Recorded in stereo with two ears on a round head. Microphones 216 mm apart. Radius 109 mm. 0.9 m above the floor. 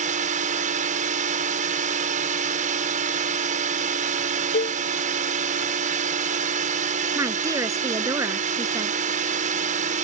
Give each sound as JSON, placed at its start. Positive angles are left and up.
{"t": 0.0, "sound": "a drone", "side_deg": -30}
{"t": 4.5, "sound": "a cowbell", "side_deg": 40}
{"t": 7.2, "sound": "a woman speaking", "side_deg": -15}